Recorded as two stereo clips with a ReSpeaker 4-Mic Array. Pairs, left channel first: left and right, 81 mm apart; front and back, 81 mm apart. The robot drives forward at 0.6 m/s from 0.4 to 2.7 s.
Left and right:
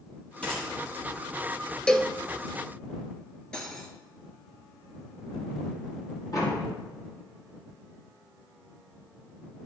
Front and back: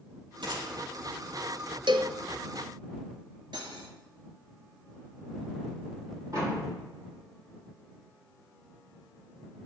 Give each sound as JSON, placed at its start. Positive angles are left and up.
{"t": 0.4, "sound": "a gunshot", "azimuth_deg": 165, "distance_m": 6.0}
{"t": 1.9, "sound": "a cowbell", "azimuth_deg": 170, "distance_m": 0.8}
{"t": 3.5, "sound": "cutlery clinking", "azimuth_deg": 170, "distance_m": 2.0}
{"t": 6.3, "sound": "a door slam", "azimuth_deg": 135, "distance_m": 7.0}